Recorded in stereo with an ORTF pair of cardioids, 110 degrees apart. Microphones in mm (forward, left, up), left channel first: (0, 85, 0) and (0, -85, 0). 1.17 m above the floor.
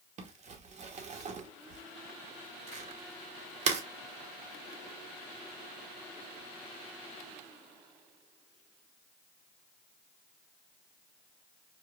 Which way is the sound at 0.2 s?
45° right.